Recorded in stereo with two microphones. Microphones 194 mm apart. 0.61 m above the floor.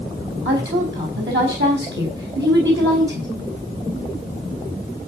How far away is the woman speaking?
About 4.5 m.